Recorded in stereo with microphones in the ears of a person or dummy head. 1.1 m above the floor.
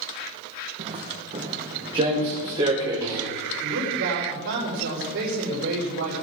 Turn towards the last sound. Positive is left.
turn(degrees=-70)  # may be behind; listen again after turning